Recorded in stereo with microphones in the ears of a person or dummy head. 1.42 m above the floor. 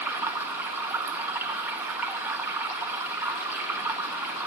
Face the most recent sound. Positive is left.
turn(degrees=-10)  # may be behind; listen again after turning